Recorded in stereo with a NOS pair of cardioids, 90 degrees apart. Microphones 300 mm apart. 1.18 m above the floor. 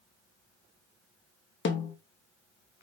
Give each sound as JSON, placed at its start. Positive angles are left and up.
{"t": 1.6, "sound": "a snare drum", "azimuth_deg": 40, "distance_m": 0.8}